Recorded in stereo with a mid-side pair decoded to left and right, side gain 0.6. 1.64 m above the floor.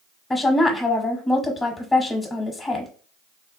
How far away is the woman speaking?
About 0.7 m.